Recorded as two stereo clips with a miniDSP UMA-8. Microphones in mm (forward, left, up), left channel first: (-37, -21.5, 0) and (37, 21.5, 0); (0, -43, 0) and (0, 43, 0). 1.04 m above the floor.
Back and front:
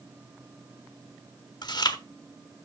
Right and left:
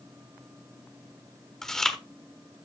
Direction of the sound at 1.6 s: 175° right.